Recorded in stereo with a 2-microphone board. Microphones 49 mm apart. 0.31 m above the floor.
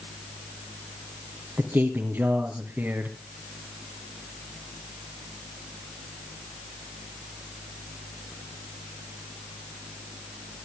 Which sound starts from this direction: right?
A man speaking, at 1.6 s.